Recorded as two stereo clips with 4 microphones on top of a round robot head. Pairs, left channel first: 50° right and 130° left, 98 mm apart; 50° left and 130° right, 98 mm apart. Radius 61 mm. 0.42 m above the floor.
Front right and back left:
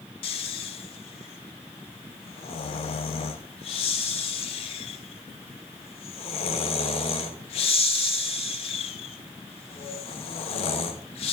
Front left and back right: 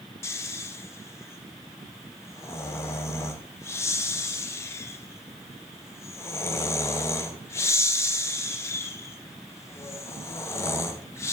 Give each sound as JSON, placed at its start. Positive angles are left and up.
{"t": 0.2, "sound": "snoring", "azimuth_deg": -15, "distance_m": 0.6}